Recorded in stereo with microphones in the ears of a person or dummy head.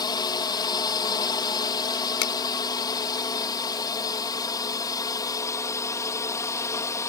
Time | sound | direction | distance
0.0 | a drone | 25° left (ahead or behind) | ?
2.2 | a finger snap | 70° left (ahead or behind) | ?